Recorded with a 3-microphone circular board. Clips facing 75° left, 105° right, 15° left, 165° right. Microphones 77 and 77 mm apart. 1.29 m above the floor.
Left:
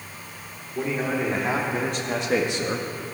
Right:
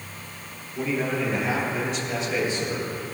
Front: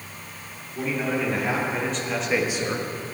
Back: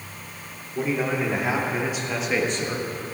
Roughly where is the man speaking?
Behind left.